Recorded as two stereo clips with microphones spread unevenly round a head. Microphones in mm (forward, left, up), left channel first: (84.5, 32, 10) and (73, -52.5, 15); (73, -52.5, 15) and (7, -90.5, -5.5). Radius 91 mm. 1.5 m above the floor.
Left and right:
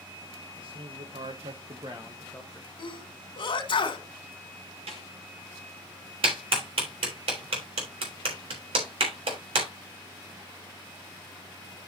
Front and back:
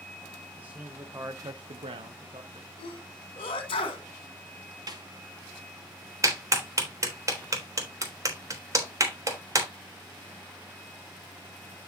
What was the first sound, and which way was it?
A man speaking, 75° right.